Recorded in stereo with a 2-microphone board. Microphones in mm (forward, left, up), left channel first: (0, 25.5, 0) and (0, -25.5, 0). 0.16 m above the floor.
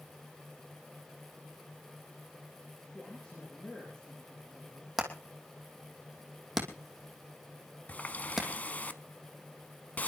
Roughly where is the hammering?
Centre.